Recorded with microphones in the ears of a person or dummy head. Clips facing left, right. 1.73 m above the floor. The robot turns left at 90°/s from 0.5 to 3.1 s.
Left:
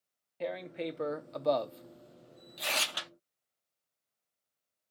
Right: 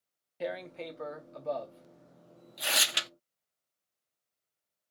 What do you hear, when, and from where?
0.4 s tearing paper: 5° right (ahead or behind), 0.5 m; by 3.1 s 45° right (ahead or behind), 0.5 m